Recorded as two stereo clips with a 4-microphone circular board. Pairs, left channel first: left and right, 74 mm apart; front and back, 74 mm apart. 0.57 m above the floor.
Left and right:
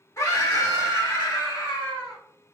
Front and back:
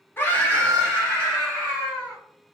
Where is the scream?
55° left, 1.1 m; by 2.2 s 80° left, 3 m.